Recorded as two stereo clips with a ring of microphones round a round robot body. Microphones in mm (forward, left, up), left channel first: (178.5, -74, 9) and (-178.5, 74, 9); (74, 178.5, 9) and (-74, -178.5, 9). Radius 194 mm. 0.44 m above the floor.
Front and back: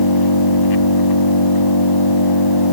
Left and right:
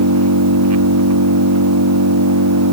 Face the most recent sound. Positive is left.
turn(degrees=-60)